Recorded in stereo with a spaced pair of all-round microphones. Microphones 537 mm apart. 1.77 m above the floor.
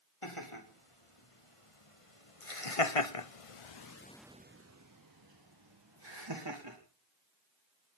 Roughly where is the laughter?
Left.